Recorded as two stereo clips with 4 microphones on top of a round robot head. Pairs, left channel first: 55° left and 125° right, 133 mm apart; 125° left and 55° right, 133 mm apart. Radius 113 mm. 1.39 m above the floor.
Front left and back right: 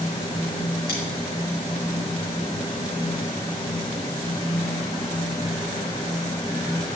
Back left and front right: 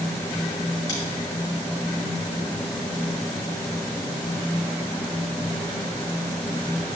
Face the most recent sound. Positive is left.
turn(degrees=65)